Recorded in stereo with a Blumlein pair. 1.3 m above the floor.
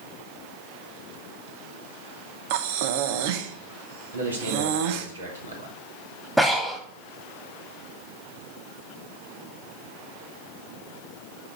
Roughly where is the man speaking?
Right.